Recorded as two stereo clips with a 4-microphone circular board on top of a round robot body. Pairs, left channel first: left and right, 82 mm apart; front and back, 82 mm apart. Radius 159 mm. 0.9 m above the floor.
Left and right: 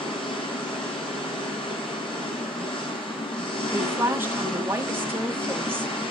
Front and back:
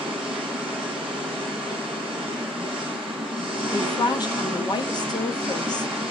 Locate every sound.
0.0 s an engine running: 110° left, 7.5 m
3.7 s a woman speaking: 30° right, 1.9 m